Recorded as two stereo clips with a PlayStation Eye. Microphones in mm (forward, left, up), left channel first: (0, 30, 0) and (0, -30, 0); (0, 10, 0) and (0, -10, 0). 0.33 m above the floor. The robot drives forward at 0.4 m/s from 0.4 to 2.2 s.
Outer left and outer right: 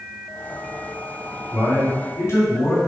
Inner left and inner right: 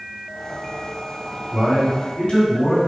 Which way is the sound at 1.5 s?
50° left (ahead or behind).